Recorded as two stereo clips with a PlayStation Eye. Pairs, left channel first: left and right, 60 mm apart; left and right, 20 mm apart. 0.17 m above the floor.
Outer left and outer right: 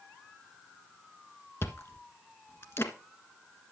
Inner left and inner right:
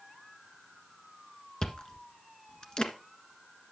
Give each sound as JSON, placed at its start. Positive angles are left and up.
{"t": 1.6, "sound": "chewing", "side_deg": 40, "distance_m": 1.5}